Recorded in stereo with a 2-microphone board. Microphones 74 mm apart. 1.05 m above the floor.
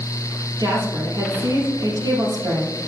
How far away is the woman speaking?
About 3.5 m.